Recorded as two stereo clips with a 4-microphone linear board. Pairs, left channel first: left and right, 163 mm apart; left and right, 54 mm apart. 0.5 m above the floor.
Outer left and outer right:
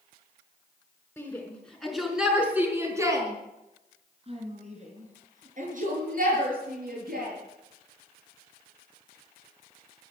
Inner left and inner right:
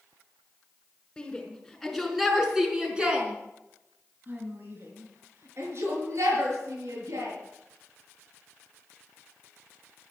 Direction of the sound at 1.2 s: 10° left (ahead or behind).